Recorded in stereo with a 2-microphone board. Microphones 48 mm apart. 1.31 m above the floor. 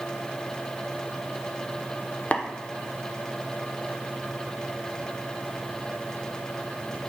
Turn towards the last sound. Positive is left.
turn(degrees=30)  # may be behind; listen again after turning